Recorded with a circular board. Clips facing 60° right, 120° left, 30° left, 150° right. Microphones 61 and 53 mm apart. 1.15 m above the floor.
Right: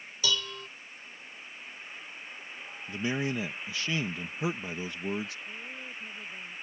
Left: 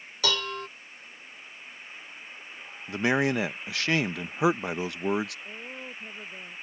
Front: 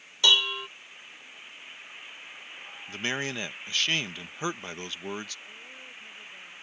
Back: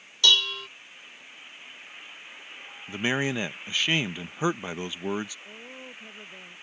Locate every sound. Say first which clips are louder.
0.2 s dishes clattering: left 4 dB, even; 100° left
2.9 s a man speaking: left 7 dB, back 5 dB; 135° left
5.5 s a woman speaking: left 2 dB, back 3 dB; 150° left